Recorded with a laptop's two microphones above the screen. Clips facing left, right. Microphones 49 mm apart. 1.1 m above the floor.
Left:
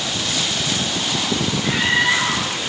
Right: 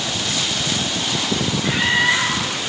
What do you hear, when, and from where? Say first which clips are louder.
1.6 s a scream: even; 5° right (ahead or behind), 5 m